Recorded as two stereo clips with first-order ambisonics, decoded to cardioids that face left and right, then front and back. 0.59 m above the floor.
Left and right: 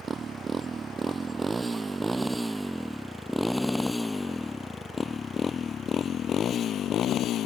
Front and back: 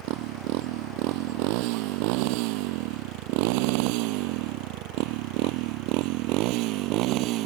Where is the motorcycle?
160° right; by 7.5 s 145° left.